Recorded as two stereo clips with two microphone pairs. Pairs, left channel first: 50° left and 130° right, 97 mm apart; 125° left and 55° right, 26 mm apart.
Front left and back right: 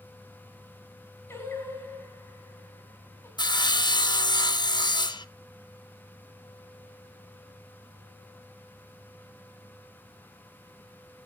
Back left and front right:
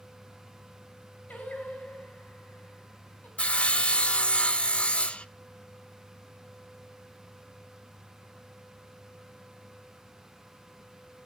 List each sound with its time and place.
1.3 s singing: 120° left, 3.5 m
3.4 s sawing: 90° left, 0.6 m